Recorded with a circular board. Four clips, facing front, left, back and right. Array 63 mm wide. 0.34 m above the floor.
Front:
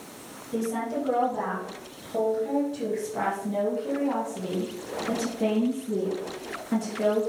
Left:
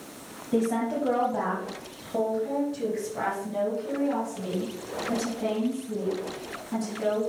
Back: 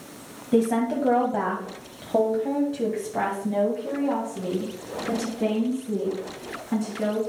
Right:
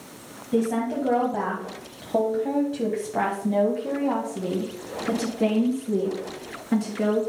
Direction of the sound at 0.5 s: 175° left.